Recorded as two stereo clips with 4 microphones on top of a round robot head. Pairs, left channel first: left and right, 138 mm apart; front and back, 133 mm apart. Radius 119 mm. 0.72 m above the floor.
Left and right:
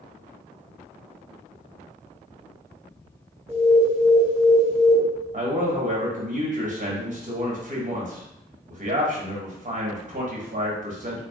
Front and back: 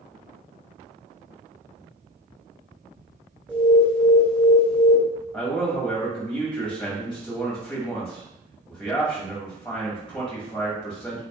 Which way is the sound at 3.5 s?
100° right.